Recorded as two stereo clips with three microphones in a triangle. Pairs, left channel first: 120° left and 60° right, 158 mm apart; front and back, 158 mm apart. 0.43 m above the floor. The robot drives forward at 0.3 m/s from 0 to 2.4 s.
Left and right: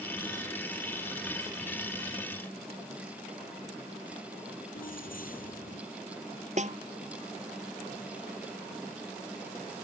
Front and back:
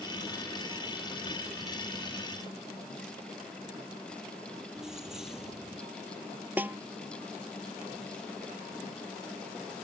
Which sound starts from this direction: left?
Keys jangling, at 4.8 s.